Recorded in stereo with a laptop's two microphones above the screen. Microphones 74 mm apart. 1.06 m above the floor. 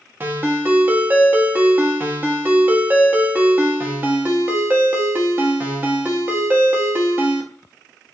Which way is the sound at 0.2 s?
30° right (ahead or behind).